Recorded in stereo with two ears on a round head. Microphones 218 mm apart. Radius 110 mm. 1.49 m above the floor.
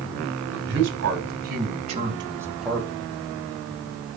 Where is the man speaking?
55° right (ahead or behind), 3 m; by 2.9 s 10° left (ahead or behind), 1.7 m.